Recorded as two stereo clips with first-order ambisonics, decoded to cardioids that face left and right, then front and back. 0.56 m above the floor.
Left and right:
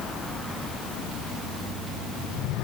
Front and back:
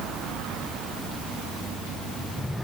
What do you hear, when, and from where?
Only background noise.